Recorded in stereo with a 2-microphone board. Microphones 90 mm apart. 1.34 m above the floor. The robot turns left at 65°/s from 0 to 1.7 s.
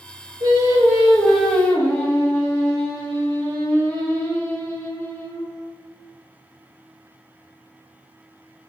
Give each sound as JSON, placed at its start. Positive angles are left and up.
{"t": 0.4, "sound": "singing", "azimuth_deg": -130, "distance_m": 1.0}